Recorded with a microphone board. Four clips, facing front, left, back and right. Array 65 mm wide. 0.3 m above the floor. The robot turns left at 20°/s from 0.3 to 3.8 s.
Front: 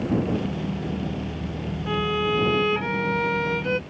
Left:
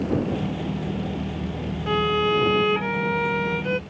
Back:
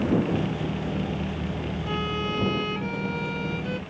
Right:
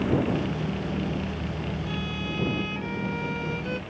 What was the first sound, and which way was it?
A violin, 75° left.